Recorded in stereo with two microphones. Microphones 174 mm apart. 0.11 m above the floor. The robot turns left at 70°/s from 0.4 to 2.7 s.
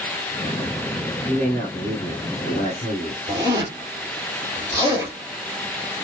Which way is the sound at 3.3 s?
20° right (ahead or behind).